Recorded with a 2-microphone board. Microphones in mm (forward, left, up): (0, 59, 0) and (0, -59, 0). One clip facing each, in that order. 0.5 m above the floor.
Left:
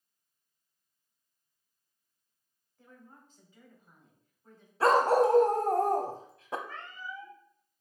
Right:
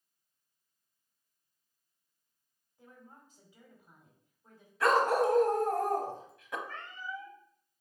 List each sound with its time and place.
2.8 s a woman speaking: 10° right (ahead or behind), 2.5 m
4.8 s a dog barking: 35° left (ahead or behind), 0.7 m
6.7 s a cat meowing: 5° left (ahead or behind), 2.5 m